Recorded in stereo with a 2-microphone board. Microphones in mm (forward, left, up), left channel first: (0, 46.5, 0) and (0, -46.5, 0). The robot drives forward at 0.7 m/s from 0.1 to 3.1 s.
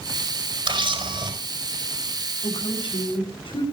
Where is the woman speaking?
65° left (ahead or behind), 5 m; by 3.6 s 70° left (ahead or behind), 5 m.